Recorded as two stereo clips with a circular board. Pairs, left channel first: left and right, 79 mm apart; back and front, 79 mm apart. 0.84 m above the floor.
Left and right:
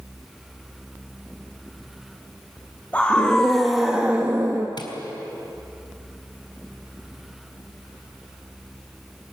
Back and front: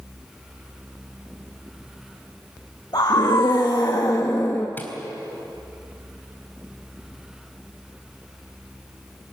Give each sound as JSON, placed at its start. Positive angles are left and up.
{"t": 2.9, "sound": "a scream", "azimuth_deg": 160, "distance_m": 2.0}
{"t": 4.8, "sound": "tapping", "azimuth_deg": 115, "distance_m": 3.0}